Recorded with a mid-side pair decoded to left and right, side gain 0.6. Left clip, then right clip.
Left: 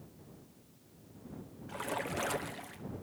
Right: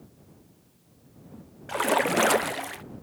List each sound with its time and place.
1.7 s a splash: 55° right